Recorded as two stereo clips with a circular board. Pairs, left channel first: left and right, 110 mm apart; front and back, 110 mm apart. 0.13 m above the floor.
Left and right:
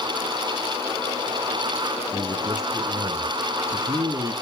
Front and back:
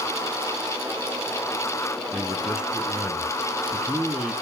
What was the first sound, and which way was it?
A man speaking, 105° right.